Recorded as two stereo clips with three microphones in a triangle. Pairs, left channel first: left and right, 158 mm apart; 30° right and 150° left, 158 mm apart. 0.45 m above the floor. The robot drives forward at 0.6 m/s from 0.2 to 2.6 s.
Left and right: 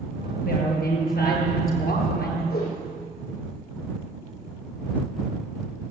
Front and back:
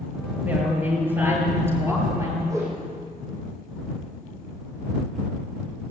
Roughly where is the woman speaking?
Left.